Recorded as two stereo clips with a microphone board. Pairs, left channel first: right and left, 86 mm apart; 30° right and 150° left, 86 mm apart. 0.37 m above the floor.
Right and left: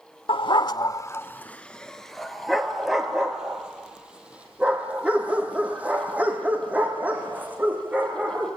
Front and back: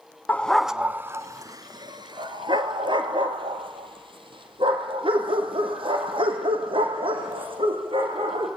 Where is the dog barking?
100° right, 0.8 m; by 8.5 s 160° left, 7 m.